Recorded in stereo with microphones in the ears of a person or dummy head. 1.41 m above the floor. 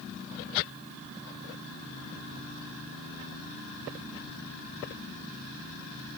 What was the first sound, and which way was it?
Only background noise.